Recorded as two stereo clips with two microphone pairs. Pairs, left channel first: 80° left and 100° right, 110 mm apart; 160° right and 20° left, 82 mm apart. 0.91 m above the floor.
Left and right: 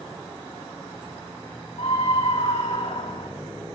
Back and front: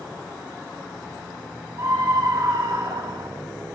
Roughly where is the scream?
Ahead left.